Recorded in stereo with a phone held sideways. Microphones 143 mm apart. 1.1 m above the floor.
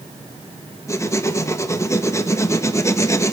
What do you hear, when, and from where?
0.9 s writing: 20° left (ahead or behind), 1.4 m